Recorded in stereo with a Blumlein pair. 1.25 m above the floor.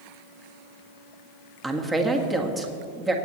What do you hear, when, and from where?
1.6 s a woman speaking: 10° right, 1.5 m